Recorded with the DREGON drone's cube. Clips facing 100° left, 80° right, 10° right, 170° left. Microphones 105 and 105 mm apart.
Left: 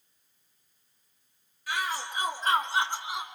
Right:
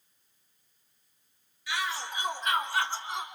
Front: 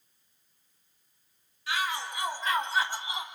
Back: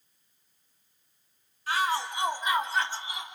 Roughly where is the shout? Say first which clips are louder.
Left 1 dB, back 4 dB; behind left.